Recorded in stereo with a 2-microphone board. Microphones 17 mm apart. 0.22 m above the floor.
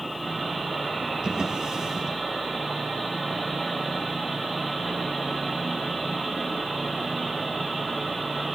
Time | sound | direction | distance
1.2 | a drawer | 50° right (ahead or behind) | 3.5 m